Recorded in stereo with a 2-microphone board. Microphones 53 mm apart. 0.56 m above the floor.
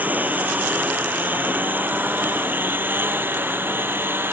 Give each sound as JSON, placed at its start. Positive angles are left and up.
{"t": 0.0, "sound": "a lawn mower", "side_deg": -35}